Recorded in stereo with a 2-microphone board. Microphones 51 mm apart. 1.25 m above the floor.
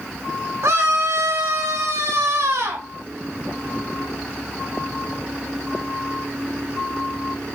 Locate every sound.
0.6 s a scream: 70° right (ahead or behind), 3.5 m; by 2.9 s 80° right, 5.5 m